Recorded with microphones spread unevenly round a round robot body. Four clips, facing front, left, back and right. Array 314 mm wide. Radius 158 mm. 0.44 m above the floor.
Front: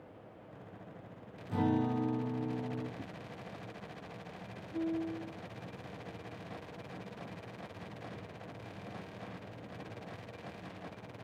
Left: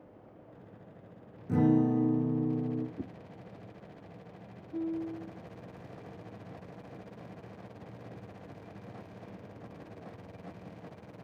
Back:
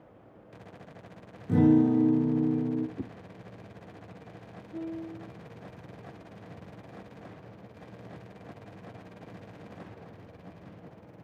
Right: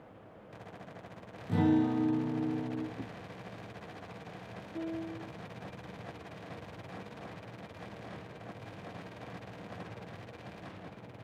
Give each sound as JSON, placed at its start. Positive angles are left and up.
{"t": 1.5, "sound": "a guitar", "azimuth_deg": 165, "distance_m": 2.5}
{"t": 3.0, "sound": "a whoosh", "azimuth_deg": 165, "distance_m": 0.9}
{"t": 4.7, "sound": "a piano", "azimuth_deg": 120, "distance_m": 8.5}